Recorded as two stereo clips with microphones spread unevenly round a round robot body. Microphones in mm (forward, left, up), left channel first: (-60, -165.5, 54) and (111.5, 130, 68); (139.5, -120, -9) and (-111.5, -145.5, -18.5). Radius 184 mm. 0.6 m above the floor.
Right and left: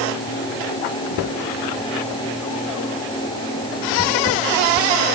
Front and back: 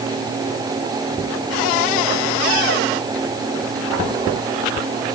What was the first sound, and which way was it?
Only background noise.